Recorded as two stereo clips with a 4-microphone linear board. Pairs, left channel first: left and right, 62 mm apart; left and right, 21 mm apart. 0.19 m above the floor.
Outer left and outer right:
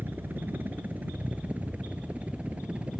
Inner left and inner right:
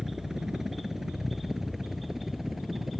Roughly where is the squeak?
I don't hear a squeak.